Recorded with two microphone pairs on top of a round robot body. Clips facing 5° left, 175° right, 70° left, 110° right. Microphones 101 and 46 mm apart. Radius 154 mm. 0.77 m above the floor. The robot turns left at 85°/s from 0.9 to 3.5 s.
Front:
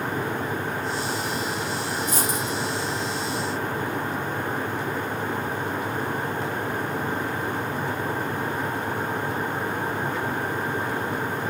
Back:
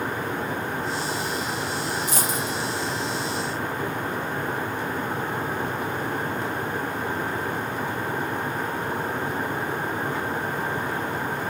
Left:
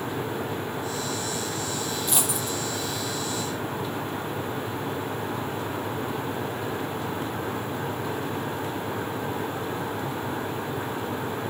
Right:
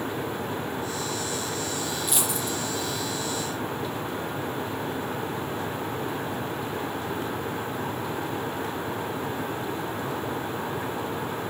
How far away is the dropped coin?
About 5 m.